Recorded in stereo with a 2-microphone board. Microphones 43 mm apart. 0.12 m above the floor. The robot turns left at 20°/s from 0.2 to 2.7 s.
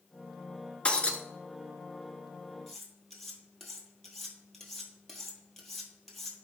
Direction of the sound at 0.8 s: 25° left (ahead or behind).